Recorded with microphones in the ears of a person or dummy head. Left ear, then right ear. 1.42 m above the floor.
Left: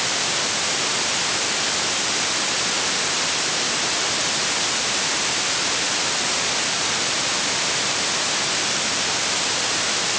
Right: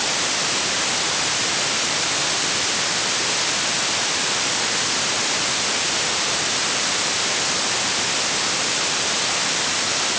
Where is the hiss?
I don't hear a hiss.